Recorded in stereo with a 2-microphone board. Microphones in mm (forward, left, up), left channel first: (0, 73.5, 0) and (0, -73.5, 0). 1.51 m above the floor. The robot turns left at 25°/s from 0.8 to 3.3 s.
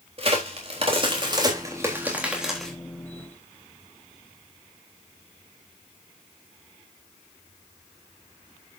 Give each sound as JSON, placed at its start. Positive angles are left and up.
{"t": 0.2, "sound": "a crack", "side_deg": -45, "distance_m": 3.5}